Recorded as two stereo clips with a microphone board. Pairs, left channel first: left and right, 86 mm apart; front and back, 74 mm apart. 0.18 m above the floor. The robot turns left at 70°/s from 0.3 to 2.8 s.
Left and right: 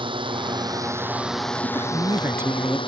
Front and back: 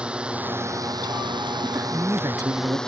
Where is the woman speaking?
95° right; by 2.8 s 175° right.